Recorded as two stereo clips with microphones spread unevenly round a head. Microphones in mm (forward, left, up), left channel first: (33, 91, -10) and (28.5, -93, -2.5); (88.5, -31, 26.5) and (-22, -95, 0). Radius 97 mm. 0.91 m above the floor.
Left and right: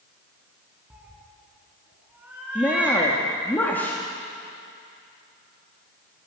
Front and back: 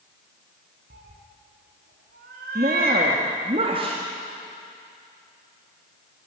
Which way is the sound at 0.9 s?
175° right.